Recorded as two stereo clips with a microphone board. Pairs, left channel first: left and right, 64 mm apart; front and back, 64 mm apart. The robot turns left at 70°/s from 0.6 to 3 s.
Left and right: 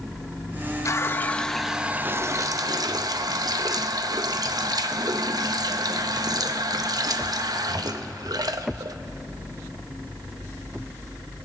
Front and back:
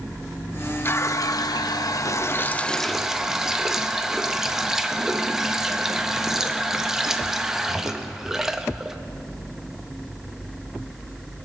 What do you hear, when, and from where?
0.8 s a running tap: 55° left, 0.6 m; by 9.0 s 95° right, 0.6 m